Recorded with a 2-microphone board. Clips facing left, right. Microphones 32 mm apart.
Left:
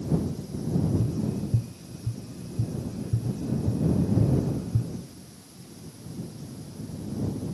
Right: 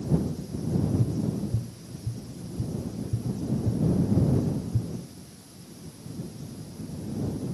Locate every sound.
1.0 s tapping: 60° left (ahead or behind)